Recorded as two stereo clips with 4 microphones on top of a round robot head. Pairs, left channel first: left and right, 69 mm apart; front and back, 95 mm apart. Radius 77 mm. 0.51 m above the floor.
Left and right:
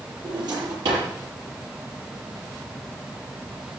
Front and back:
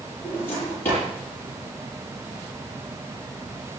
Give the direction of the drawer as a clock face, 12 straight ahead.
2 o'clock.